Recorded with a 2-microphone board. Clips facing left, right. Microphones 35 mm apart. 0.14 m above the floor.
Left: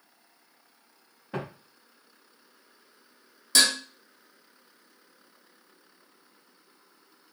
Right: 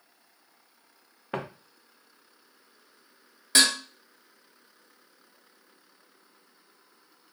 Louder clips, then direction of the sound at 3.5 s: Right 1 dB; 35° right (ahead or behind).